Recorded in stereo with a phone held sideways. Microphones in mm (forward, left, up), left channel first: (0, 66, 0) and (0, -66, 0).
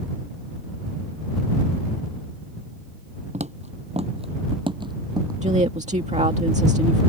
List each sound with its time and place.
3.3 s footsteps: 60° right (ahead or behind); by 5.3 s 30° right (ahead or behind)
5.4 s a woman speaking: 60° right (ahead or behind)